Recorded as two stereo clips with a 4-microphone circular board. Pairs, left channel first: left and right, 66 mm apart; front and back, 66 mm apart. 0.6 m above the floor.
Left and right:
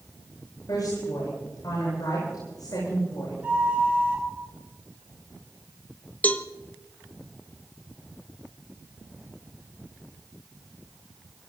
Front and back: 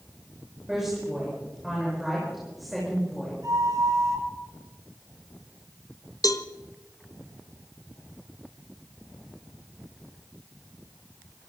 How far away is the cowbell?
About 0.9 m.